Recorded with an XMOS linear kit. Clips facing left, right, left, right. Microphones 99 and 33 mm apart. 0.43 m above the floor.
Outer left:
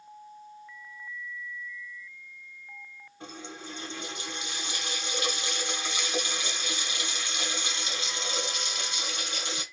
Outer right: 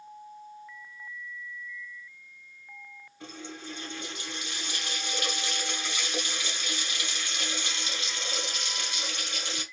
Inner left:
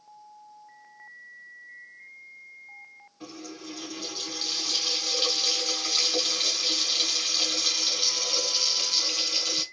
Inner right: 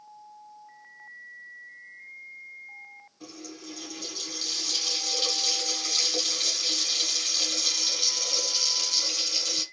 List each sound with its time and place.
3.2 s a running tap: 25° left (ahead or behind), 2.5 m